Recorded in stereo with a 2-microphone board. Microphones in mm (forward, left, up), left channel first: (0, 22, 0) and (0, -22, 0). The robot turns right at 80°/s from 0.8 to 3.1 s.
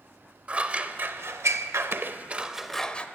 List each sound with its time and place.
0.5 s scissors: 30° right (ahead or behind), 0.6 m; by 3.1 s 30° left (ahead or behind), 0.6 m